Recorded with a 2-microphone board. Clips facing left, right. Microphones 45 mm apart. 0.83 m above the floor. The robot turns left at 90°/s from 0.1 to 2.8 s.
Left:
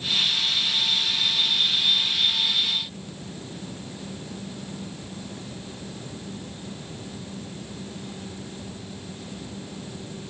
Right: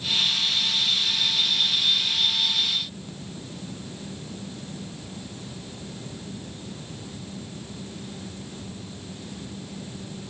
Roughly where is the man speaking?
No man speaking in this recording.